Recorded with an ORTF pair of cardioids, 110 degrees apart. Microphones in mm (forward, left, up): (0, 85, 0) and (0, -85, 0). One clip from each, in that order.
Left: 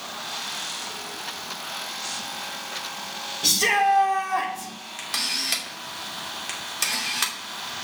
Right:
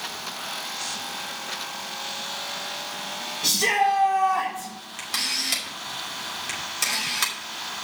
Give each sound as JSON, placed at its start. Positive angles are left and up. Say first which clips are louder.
{"t": 3.4, "sound": "a shout", "louder": "left 1 dB", "azimuth_deg": 10, "distance_m": 3.5}
{"t": 5.0, "sound": "a camera shutter", "louder": "even", "azimuth_deg": 5, "distance_m": 2.5}